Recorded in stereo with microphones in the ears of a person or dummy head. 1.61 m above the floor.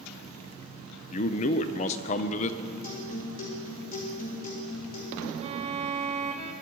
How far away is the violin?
About 0.9 m.